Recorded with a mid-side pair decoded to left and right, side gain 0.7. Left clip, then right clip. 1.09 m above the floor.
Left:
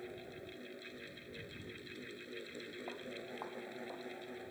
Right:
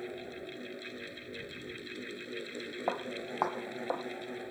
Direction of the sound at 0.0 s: 30° right.